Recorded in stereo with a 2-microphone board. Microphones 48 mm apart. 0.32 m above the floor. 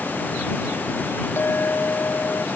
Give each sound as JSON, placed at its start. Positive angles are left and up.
{"t": 1.4, "sound": "a clink", "side_deg": 55}